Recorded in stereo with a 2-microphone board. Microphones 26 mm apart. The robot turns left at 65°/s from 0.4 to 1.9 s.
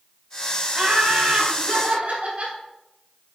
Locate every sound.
0.7 s laughter: 30° right, 3 m; by 2.6 s 105° right, 3 m